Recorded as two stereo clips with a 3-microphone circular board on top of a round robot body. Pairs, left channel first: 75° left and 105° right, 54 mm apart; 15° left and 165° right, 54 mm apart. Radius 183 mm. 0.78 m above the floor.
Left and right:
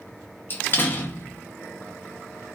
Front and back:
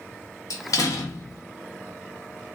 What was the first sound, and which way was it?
A door slam, 20° left.